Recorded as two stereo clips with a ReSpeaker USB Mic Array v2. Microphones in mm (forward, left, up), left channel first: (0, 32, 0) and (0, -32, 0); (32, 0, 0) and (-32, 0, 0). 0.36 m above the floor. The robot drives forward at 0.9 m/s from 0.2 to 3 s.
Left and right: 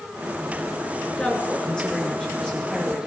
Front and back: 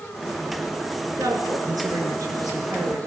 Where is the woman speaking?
170° left, 5 m.